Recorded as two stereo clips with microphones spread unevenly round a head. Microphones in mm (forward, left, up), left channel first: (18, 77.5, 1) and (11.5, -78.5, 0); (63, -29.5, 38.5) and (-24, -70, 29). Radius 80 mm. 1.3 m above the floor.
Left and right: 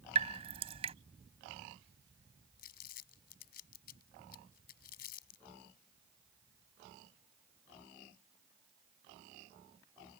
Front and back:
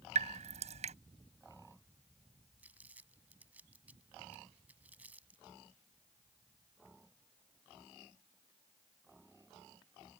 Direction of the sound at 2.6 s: 125° left.